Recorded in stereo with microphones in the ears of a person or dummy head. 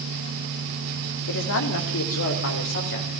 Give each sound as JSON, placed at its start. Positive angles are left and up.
{"t": 1.3, "sound": "a man speaking", "side_deg": 65, "distance_m": 2.5}